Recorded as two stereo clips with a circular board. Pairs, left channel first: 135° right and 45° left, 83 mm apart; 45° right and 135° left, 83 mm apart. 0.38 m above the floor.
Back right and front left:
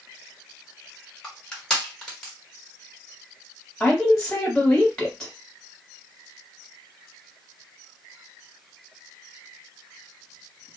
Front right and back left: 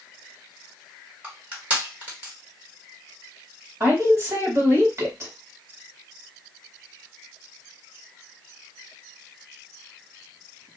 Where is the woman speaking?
145° left, 1.3 m.